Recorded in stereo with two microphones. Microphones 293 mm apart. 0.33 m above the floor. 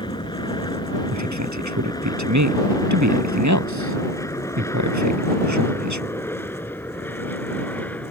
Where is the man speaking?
75° right (ahead or behind).